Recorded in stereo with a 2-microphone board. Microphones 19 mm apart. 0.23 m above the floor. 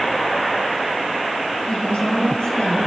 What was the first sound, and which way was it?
A woman speaking, 70° left (ahead or behind).